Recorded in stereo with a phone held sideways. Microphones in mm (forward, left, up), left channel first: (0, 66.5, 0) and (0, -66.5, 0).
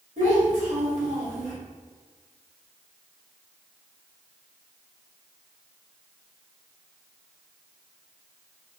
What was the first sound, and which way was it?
A child speaking, 75° right (ahead or behind).